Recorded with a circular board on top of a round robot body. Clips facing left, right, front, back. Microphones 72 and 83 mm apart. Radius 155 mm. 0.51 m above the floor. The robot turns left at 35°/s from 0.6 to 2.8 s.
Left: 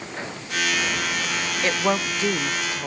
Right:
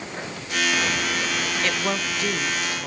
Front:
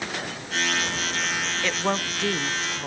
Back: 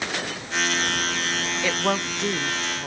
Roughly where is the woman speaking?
Left.